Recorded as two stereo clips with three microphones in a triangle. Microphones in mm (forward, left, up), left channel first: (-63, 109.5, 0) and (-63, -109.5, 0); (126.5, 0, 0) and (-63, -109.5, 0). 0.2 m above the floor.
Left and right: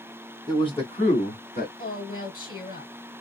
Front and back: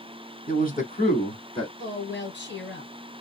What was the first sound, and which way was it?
A man speaking, 30° left.